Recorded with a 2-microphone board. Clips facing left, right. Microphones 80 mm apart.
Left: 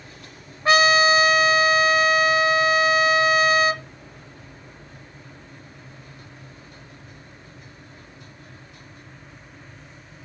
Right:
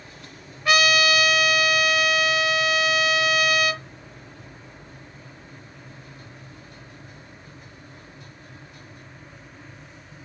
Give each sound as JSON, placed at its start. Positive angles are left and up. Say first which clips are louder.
{"t": 0.7, "sound": "a trumpet", "louder": "left 3 dB", "side_deg": 35, "distance_m": 0.9}